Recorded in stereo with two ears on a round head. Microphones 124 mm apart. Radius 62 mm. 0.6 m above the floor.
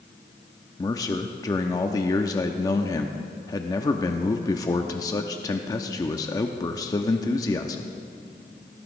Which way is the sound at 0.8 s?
25° left (ahead or behind).